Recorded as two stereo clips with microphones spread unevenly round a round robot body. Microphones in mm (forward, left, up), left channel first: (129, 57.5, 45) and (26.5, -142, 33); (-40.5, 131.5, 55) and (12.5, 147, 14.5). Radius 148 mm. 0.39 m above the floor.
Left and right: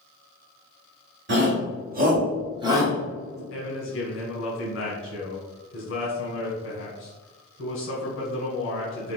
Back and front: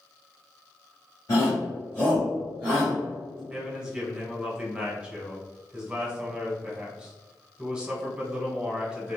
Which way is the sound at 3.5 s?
55° left.